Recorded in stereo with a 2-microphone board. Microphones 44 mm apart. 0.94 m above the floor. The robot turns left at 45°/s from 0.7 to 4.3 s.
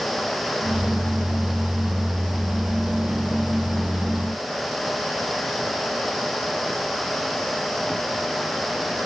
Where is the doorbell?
No doorbell in this recording.